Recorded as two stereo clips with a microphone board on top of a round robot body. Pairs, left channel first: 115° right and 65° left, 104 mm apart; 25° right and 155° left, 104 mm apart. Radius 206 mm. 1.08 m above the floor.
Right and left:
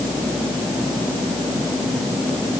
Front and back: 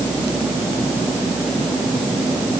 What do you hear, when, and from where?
Only background noise.